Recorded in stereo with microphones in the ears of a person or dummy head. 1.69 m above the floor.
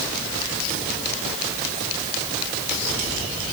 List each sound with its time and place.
Only background noise.